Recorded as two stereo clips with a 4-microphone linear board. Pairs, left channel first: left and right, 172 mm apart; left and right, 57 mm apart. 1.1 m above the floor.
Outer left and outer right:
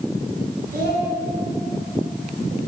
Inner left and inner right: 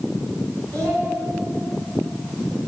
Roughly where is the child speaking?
Right.